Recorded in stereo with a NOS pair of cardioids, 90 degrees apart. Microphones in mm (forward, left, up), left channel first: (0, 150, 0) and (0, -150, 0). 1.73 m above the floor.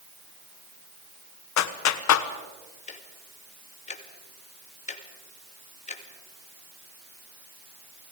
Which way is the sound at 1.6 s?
70° left.